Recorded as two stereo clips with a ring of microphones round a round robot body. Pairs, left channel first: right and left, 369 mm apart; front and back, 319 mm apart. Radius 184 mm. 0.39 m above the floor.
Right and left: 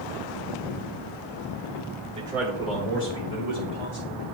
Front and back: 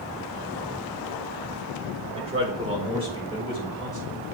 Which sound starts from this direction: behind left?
A man speaking, at 2.2 s.